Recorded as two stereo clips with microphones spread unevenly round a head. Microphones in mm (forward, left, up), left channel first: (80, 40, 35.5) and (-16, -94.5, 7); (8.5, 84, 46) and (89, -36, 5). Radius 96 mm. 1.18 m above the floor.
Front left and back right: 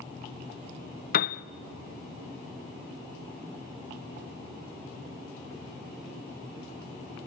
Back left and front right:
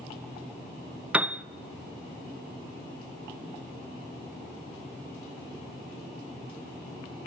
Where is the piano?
20° left, 0.6 m.